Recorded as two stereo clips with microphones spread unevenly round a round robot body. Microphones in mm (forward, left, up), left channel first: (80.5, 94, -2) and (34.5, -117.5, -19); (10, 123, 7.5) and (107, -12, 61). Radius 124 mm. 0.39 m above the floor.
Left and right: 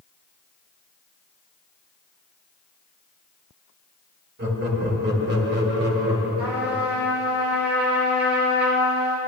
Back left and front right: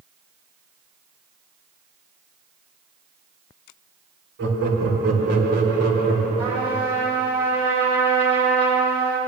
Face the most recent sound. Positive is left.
turn(degrees=-155)